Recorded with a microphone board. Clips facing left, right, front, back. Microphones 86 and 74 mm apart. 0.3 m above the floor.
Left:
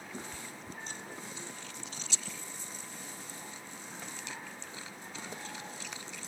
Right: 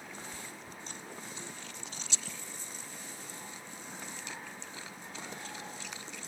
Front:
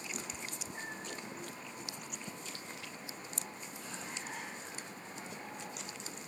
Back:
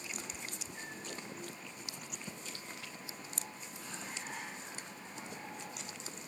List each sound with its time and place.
0.1 s a cat meowing: 65° left